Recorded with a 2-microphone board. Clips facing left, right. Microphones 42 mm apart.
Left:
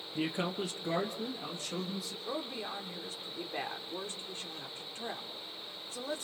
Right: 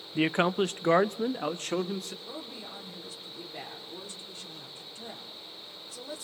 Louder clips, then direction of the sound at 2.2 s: Left 4 dB; 40° left (ahead or behind).